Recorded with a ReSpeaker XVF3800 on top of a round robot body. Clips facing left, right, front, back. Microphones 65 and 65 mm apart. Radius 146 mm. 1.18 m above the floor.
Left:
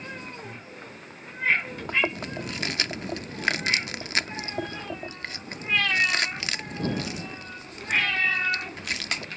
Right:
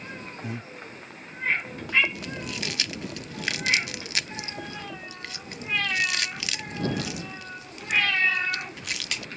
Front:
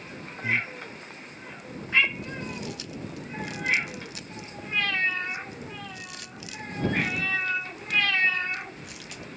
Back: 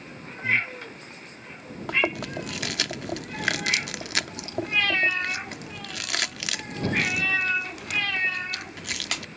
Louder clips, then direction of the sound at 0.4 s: Right 5 dB, back 3 dB; 70° right.